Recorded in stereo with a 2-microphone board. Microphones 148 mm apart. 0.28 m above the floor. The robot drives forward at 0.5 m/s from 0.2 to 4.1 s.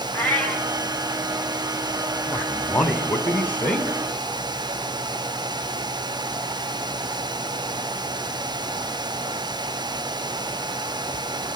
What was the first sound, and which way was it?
A cat meowing, 10° left (ahead or behind).